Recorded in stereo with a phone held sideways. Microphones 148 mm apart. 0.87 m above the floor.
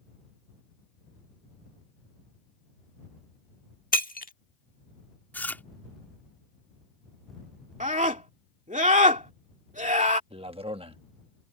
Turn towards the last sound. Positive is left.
turn(degrees=-40)  # may be behind; listen again after turning